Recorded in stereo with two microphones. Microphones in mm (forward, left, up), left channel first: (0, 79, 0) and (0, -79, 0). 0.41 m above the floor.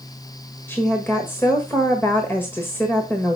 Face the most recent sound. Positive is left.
turn(degrees=15)  # may be behind; listen again after turning